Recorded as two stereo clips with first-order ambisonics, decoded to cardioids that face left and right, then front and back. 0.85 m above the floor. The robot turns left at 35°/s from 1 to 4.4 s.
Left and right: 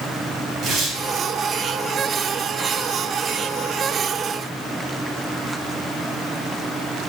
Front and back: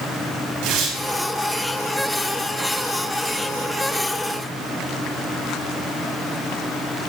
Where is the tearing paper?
150° right, 3 m.